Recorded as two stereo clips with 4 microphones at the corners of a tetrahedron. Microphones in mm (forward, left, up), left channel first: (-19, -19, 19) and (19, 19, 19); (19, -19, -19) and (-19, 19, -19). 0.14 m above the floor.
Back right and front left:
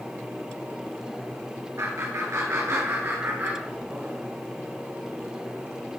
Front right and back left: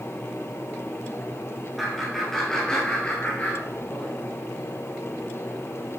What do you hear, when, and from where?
1.8 s laughter: 50° left, 2.5 m; by 4.1 s 25° right, 1.6 m